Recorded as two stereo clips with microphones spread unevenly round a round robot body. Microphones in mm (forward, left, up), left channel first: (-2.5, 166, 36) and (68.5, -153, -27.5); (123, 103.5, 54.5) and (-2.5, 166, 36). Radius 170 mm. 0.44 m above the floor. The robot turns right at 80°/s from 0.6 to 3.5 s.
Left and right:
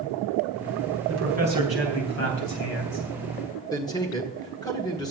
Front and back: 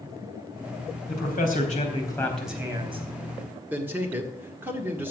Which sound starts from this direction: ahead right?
A man speaking, at 1.1 s.